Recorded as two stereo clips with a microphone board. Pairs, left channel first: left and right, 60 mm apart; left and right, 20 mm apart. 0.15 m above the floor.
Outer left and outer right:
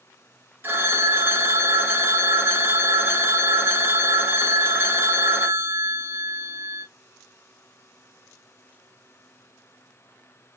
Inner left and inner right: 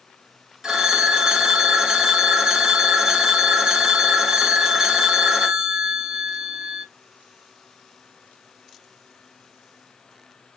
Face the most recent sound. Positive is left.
turn(degrees=-35)  # may be behind; listen again after turning